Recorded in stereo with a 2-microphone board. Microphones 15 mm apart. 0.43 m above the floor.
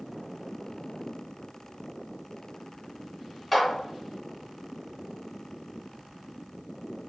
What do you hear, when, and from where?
3.5 s a clap: centre (ahead or behind), 1.4 m